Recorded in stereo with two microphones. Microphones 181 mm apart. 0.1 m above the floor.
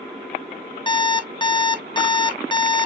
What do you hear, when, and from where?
0.9 s an alarm clock: 25° left (ahead or behind), 0.7 m